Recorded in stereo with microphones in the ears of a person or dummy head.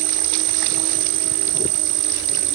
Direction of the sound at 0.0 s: 65° right (ahead or behind).